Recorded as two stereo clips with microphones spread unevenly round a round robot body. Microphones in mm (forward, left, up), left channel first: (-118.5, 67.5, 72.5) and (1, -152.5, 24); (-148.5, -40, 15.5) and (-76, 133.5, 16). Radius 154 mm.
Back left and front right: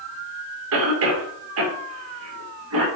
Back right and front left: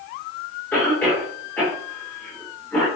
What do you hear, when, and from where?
0.7 s a cough: 30° right, 3.5 m